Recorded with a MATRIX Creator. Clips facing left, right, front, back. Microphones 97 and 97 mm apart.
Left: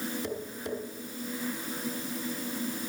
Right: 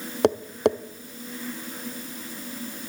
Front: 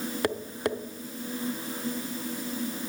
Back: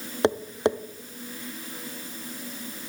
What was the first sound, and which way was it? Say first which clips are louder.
Tapping: right 13 dB, back 7 dB; 115° right.